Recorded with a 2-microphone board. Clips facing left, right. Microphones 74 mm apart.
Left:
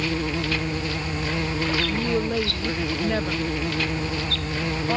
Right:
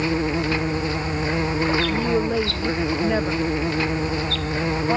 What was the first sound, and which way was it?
An insect, 25° right (ahead or behind).